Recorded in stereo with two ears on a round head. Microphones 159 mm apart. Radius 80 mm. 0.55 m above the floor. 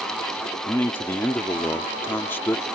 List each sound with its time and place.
0.7 s a man speaking: 10° left (ahead or behind)